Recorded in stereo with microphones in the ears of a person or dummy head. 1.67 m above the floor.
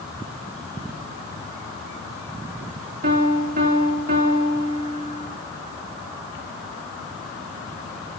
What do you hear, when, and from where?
3.0 s a piano: 40° right (ahead or behind), 4 m